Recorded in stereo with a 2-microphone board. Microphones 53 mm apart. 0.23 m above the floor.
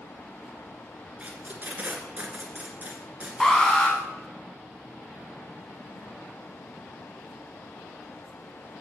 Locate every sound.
1.2 s tape being pulled: 30° right (ahead or behind), 2 m
3.4 s an alarm: 10° left (ahead or behind), 2.5 m